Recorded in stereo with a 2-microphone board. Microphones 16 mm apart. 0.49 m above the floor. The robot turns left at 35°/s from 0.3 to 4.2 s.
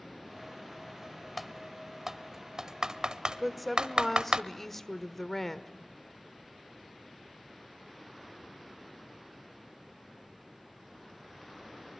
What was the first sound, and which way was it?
Typing on a keyboard, centre (ahead or behind).